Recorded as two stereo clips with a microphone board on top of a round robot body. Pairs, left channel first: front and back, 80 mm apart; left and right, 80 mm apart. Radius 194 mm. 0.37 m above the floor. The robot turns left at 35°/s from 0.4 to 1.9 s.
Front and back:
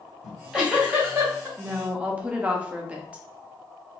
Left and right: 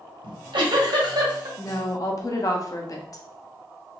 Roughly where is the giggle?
Right.